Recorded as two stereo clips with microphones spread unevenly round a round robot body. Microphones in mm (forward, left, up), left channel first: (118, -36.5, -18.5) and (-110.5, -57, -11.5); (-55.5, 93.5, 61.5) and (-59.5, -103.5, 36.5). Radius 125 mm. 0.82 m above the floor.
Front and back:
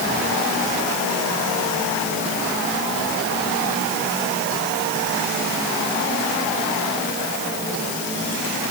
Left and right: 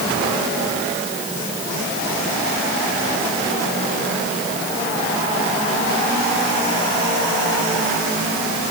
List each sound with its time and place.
Only background noise.